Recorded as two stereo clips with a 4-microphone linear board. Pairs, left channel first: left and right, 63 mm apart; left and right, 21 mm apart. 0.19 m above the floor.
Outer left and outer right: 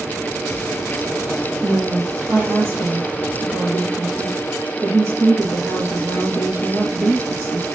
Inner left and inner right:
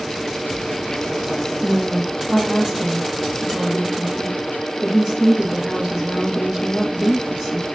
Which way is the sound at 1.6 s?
40° right (ahead or behind).